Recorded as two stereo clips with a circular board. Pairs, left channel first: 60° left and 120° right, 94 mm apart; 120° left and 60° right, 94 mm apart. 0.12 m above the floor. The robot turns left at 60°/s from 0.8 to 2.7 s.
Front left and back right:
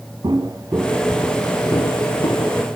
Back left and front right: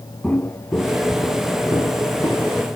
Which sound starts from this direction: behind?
Footsteps, at 0.2 s.